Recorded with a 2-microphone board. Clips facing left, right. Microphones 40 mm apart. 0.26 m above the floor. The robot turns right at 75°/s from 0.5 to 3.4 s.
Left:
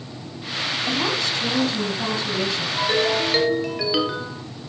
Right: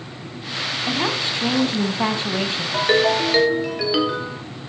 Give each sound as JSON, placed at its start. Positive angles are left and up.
{"t": 0.9, "sound": "a woman speaking", "azimuth_deg": -170, "distance_m": 2.0}
{"t": 2.7, "sound": "a ringtone", "azimuth_deg": -50, "distance_m": 2.5}